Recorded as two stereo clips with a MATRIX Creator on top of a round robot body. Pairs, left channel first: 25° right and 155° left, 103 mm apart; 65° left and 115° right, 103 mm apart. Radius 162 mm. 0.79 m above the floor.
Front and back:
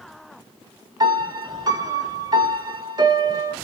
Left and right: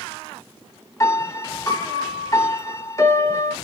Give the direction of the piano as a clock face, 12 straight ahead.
8 o'clock.